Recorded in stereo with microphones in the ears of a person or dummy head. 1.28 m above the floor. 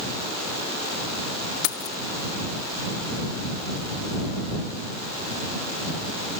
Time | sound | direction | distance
1.6 | keys jangling | 60° left (ahead or behind) | ?